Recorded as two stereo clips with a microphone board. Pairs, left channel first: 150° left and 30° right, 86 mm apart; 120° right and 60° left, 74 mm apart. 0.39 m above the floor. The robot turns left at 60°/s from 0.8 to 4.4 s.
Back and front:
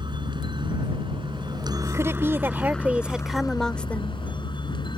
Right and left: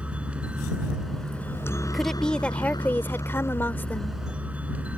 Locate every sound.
0.0 s a helicopter: 15° right; by 5.0 s 130° left
1.9 s a woman speaking: 30° right; by 4.2 s 165° right